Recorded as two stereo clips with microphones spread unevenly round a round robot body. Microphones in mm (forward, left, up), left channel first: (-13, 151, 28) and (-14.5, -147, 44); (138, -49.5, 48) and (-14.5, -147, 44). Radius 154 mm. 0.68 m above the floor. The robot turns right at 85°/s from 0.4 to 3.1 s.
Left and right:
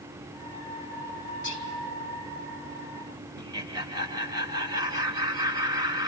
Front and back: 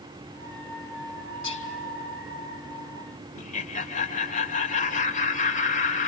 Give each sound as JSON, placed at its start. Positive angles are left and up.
{"t": 1.4, "sound": "whispering", "azimuth_deg": 35, "distance_m": 4.0}
{"t": 3.4, "sound": "laughter", "azimuth_deg": -15, "distance_m": 2.5}